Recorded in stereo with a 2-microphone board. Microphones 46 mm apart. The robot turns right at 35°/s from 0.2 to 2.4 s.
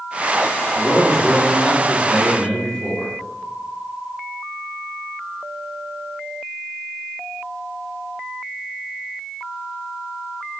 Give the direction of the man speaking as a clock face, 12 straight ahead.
8 o'clock.